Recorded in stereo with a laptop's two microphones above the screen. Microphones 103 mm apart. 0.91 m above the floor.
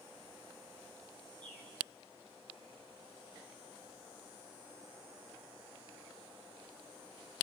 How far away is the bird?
About 3.5 m.